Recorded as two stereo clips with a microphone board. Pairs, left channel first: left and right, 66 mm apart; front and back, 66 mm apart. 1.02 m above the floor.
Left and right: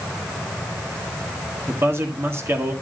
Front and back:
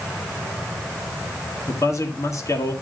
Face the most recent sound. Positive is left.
turn(degrees=-35)